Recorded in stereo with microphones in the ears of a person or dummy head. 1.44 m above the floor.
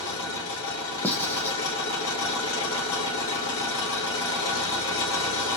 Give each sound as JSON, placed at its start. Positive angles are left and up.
{"t": 0.0, "sound": "an engine running", "side_deg": 75, "distance_m": 2.0}
{"t": 1.0, "sound": "writing", "side_deg": 15, "distance_m": 0.7}